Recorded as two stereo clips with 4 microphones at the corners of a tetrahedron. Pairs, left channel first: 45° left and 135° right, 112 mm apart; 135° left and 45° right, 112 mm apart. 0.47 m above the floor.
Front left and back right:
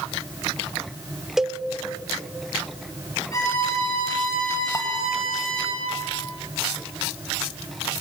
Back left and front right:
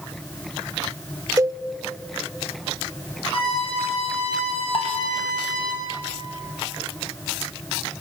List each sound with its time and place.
1.4 s a cowbell: 50° right, 0.6 m
3.3 s a violin: 105° left, 6.5 m
4.7 s dishes clattering: 100° left, 1.8 m